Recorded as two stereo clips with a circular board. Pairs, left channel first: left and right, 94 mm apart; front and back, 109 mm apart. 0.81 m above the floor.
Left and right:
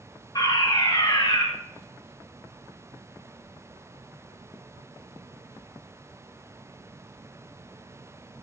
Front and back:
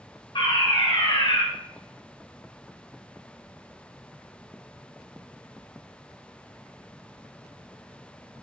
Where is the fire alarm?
45° left, 6 m.